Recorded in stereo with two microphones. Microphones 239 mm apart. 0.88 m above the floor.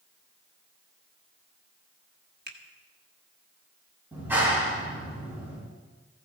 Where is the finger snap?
40° right (ahead or behind), 1.4 m.